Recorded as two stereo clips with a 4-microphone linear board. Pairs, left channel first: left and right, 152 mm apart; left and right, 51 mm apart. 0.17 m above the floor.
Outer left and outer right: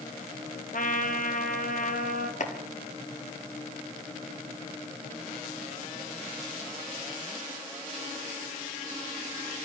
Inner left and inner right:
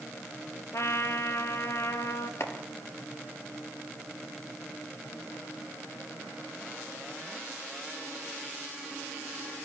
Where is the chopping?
55° left (ahead or behind), 2.5 m.